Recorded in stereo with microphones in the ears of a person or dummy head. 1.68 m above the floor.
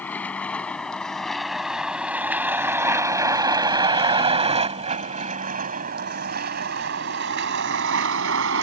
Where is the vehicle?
10° left (ahead or behind); by 8.6 s 70° right (ahead or behind).